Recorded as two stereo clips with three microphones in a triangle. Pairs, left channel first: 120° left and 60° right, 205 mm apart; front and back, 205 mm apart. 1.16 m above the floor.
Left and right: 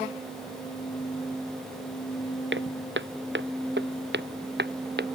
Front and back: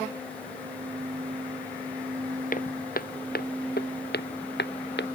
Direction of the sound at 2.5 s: 45° right.